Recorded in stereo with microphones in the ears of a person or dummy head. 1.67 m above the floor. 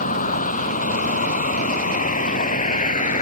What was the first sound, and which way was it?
A vehicle, 45° left (ahead or behind).